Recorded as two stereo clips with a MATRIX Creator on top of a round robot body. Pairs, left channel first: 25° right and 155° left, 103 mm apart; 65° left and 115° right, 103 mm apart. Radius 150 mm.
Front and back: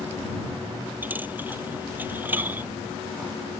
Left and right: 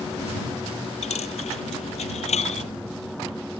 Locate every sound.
1.0 s a dropped coin: 85° left